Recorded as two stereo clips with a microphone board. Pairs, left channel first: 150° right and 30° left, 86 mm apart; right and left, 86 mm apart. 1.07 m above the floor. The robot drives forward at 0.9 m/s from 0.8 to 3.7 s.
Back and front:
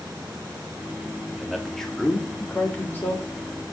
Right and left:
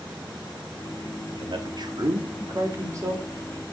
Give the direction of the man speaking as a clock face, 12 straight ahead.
8 o'clock.